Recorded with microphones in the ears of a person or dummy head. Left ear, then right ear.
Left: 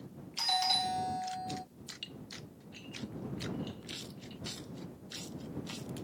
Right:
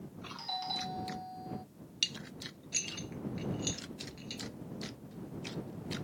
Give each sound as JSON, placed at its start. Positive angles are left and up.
{"t": 0.4, "sound": "a doorbell", "side_deg": 55}
{"t": 2.0, "sound": "dishes clattering", "side_deg": -45}